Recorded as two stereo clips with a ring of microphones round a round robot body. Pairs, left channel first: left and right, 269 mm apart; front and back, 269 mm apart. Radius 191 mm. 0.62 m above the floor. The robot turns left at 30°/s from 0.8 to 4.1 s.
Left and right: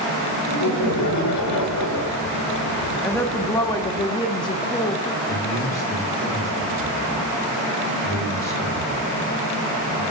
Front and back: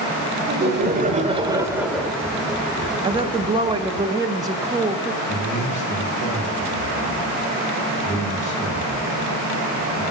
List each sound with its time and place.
0.5 s laughter: 125° left, 2.0 m; by 2.2 s 85° left, 2.0 m
3.0 s a woman speaking: 160° left, 0.5 m; by 5.2 s 130° left, 0.5 m
5.3 s a man speaking: 10° left, 7 m